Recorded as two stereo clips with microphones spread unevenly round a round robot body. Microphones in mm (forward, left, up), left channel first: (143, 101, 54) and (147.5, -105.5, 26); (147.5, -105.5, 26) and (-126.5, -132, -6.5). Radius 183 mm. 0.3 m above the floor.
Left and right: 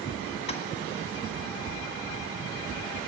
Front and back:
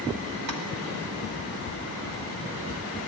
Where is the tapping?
150° left, 2.5 m.